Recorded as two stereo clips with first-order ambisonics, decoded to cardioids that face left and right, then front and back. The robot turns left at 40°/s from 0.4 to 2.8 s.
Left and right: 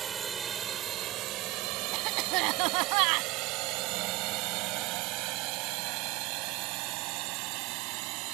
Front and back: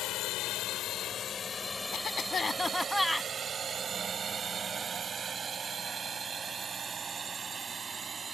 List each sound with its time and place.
0.0 s a drone: 25° right; by 8.3 s 105° right
1.9 s a cough: 50° right; by 3.3 s 85° right